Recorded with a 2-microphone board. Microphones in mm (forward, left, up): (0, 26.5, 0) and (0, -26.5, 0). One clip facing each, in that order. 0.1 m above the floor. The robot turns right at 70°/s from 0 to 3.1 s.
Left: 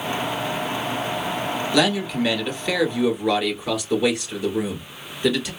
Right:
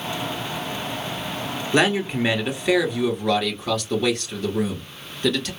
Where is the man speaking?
85° right, 1.3 m; by 5.5 s 10° left, 1.3 m.